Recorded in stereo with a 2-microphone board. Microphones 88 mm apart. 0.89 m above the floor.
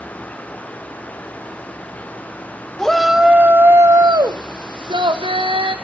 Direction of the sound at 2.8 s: 5° left (ahead or behind).